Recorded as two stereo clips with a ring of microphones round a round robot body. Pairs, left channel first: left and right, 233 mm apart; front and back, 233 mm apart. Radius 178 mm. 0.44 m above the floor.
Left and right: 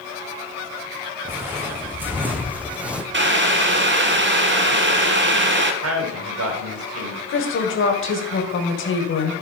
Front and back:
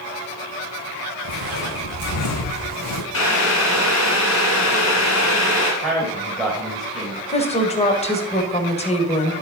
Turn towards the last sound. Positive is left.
turn(degrees=60)